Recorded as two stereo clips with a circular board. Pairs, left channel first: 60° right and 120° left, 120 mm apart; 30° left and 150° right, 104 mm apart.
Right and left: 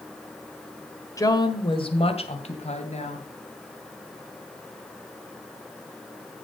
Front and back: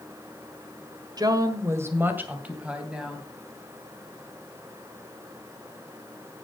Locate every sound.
1.2 s a woman speaking: 115° right, 1.6 m; by 3.3 s 65° right, 3 m